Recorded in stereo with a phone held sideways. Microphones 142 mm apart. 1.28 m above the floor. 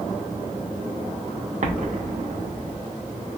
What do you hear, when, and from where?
1.6 s an explosion: 55° right (ahead or behind), 0.6 m